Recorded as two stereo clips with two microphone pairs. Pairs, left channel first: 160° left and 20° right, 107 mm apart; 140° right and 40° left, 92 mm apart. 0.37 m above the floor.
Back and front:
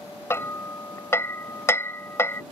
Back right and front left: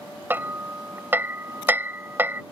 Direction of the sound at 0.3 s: 100° left.